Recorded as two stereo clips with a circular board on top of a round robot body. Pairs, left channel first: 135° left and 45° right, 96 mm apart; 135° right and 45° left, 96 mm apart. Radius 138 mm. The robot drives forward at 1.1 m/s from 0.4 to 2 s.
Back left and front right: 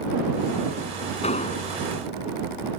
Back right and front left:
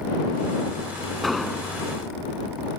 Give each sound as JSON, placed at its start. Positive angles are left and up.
{"t": 1.2, "sound": "an explosion", "azimuth_deg": 135}